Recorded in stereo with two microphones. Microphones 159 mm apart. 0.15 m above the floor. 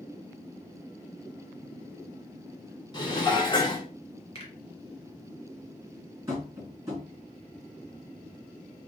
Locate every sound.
2.9 s dishes clattering: 30° left (ahead or behind), 0.8 m
4.3 s a finger snap: 40° left (ahead or behind), 1.7 m
6.3 s tapping: 20° right (ahead or behind), 1.8 m